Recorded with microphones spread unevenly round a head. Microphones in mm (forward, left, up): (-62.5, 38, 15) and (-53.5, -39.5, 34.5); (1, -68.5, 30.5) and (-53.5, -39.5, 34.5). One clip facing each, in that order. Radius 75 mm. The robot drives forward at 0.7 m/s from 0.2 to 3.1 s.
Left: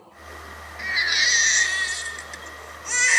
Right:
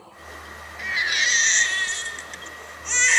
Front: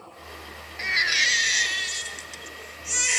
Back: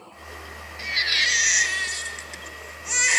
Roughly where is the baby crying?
Ahead.